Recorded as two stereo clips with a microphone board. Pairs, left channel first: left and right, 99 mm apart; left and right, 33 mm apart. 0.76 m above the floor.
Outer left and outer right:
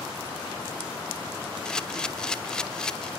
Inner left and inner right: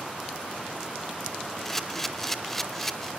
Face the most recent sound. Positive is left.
turn(degrees=5)  # may be behind; listen again after turning